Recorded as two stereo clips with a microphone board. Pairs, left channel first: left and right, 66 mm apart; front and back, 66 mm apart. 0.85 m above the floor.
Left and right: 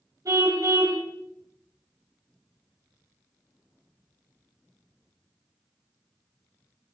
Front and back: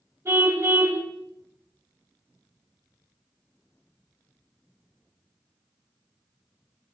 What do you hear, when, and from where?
0.2 s a car horn: 130° right, 2.5 m